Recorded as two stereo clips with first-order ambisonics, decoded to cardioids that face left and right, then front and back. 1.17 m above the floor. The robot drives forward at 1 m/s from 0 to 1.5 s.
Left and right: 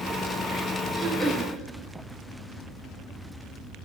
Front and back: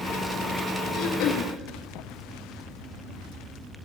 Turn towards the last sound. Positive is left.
turn(degrees=-15)